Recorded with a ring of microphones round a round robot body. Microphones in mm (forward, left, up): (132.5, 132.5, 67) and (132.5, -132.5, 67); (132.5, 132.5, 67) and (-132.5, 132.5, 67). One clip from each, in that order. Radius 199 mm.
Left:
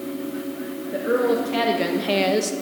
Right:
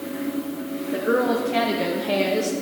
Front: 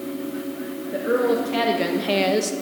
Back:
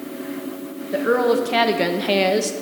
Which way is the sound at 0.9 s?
175° right.